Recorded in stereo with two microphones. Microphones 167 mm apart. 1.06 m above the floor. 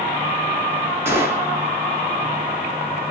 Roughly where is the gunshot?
Centre.